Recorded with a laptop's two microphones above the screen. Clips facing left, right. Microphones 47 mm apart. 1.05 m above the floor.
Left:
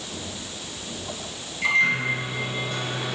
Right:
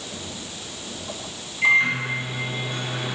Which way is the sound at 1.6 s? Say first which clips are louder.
Right 2 dB; 15° right (ahead or behind).